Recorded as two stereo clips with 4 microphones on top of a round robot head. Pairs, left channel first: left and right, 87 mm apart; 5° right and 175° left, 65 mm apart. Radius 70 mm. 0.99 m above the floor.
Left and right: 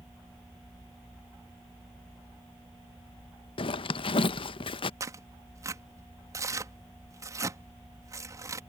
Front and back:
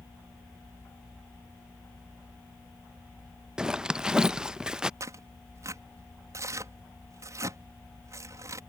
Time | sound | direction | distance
3.6 | a zipper | 100° left | ?
5.0 | tearing paper | 140° right | ?